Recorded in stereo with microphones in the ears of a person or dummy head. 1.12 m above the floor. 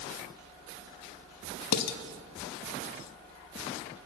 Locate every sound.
1.7 s dishes clattering: 65° left (ahead or behind), 0.9 m